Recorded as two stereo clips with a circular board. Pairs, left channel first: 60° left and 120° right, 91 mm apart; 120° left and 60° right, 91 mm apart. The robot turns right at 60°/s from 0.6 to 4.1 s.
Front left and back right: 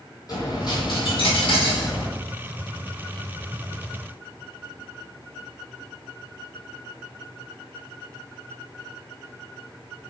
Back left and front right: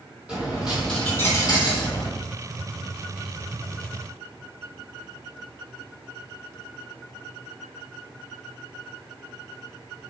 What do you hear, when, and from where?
0.3 s a dropped coin: 15° left, 1.2 m; by 2.1 s 105° left, 1.2 m